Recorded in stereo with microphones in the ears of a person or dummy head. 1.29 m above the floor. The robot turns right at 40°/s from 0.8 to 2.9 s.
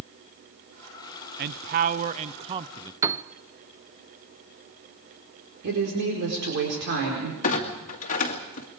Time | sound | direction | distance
1.4 | a man speaking | 85° right | 0.5 m
3.0 | a piano | 20° right (ahead or behind) | 0.6 m
5.6 | a woman speaking | 65° right (ahead or behind) | 4.5 m
7.4 | a clunk | 50° left (ahead or behind) | 2 m